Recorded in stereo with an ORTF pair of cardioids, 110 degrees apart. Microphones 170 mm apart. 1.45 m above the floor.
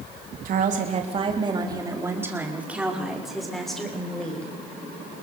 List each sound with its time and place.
0.5 s a woman speaking: 55° right, 3 m; by 4.5 s 5° left, 6.5 m